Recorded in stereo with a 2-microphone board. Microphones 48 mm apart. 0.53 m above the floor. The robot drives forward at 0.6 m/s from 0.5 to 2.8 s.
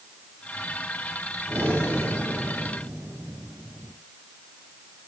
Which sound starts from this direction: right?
Breathing, at 1.5 s.